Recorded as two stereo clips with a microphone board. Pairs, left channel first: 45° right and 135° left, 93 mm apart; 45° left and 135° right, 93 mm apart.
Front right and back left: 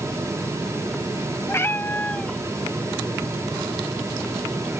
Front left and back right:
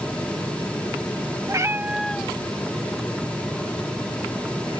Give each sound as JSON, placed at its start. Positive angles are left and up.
{"t": 1.5, "sound": "a cat meowing", "azimuth_deg": -100}